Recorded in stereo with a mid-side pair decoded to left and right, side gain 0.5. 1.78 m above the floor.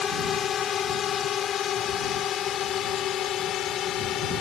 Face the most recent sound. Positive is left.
turn(degrees=65)